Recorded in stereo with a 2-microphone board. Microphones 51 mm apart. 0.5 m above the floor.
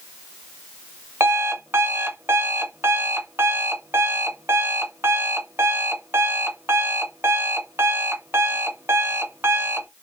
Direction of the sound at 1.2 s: 55° right (ahead or behind).